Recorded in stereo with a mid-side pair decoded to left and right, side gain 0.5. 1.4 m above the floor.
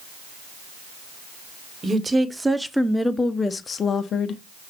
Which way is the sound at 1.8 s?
25° right.